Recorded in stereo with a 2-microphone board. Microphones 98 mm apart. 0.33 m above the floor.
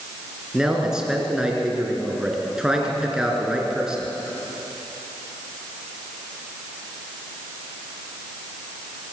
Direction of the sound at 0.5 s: 5° right (ahead or behind).